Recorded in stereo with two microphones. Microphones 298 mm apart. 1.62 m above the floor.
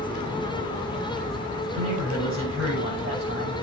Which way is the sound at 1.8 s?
45° right (ahead or behind).